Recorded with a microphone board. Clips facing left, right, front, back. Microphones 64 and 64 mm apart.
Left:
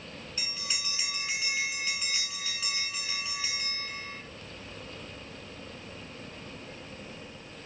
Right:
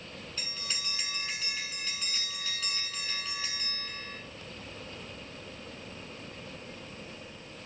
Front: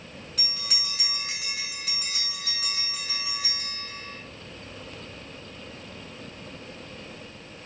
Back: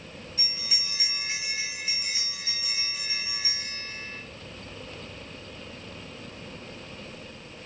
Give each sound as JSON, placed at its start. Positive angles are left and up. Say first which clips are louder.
{"t": 0.4, "sound": "a bell", "louder": "left 2 dB, front 2 dB", "azimuth_deg": 15, "distance_m": 6.5}